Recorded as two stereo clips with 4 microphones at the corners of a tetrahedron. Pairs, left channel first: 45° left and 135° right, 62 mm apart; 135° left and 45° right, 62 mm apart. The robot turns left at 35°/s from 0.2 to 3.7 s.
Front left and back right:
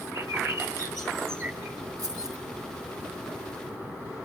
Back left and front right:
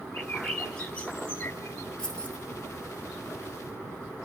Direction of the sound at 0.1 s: 135° right.